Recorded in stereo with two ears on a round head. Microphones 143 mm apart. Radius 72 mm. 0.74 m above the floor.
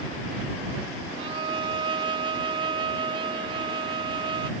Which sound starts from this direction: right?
A violin, at 1.2 s.